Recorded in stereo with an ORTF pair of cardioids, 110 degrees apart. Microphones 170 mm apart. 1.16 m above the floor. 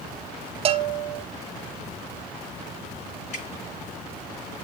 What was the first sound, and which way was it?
A bell, 40° right.